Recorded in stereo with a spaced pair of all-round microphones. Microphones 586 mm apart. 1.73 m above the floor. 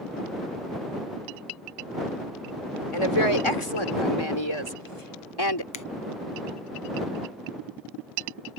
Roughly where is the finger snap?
Left.